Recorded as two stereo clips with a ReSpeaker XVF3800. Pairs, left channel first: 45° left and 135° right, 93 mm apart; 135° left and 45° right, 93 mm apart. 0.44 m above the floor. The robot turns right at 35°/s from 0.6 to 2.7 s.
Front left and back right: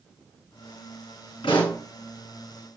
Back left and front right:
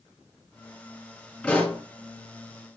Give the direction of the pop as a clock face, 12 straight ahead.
10 o'clock.